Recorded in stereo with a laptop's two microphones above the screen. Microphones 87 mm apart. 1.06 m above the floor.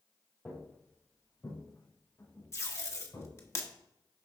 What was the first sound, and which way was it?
Footsteps, 20° left (ahead or behind).